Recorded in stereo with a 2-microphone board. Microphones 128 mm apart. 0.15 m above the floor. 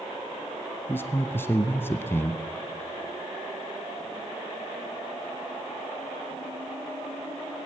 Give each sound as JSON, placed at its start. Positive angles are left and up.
{"t": 0.9, "sound": "a man speaking", "side_deg": 20, "distance_m": 1.0}